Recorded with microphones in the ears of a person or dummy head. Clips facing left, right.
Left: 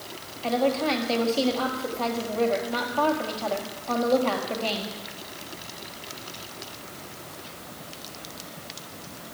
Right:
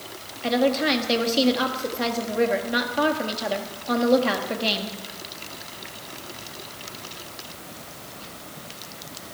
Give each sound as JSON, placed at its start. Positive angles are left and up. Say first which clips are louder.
{"t": 0.4, "sound": "a woman speaking", "louder": "right 2 dB", "side_deg": -20, "distance_m": 1.6}